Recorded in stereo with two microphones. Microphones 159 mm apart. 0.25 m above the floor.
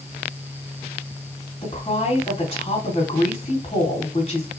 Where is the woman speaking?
35° left (ahead or behind), 2 m.